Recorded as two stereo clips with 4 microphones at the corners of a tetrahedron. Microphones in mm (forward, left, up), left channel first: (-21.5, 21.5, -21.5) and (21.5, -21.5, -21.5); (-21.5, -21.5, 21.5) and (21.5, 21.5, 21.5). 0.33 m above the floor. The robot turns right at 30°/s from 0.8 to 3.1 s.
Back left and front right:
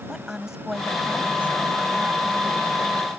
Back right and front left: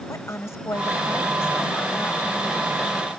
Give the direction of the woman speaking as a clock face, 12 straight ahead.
4 o'clock.